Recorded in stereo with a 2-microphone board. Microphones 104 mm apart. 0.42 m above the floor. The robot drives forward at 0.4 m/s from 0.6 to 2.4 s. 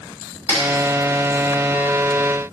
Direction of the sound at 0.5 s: 15° right (ahead or behind).